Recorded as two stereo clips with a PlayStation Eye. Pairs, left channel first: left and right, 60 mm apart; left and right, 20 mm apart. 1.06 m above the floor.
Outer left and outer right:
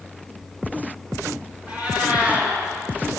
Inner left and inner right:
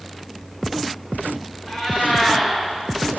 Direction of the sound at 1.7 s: 20° right (ahead or behind).